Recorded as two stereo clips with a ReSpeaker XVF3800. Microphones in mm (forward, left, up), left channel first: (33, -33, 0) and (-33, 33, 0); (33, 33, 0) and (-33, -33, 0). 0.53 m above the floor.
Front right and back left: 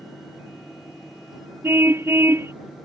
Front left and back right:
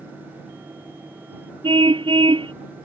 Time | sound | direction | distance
1.6 | a car horn | 160° right | ?